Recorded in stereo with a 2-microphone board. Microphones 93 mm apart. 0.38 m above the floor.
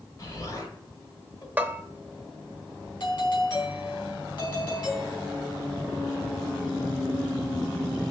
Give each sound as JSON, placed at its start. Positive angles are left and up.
{"t": 0.2, "sound": "an explosion", "side_deg": 40, "distance_m": 1.5}
{"t": 1.6, "sound": "a bell", "side_deg": -20, "distance_m": 0.7}
{"t": 3.0, "sound": "a doorbell", "side_deg": 55, "distance_m": 3.5}